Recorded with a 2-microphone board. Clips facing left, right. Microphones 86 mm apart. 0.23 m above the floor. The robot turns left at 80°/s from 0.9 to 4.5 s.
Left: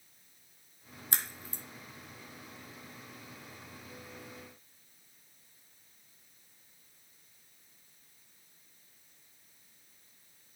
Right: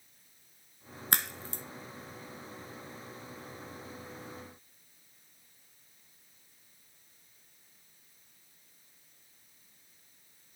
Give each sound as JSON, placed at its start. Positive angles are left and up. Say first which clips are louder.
{"t": 1.1, "sound": "a crack", "louder": "right 7 dB", "side_deg": -65, "distance_m": 1.0}